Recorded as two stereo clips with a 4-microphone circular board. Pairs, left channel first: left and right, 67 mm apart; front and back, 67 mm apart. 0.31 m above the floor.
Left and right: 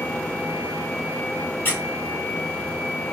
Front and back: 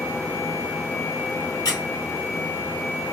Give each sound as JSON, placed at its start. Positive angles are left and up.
{"t": 1.6, "sound": "a squeak", "azimuth_deg": 25, "distance_m": 1.5}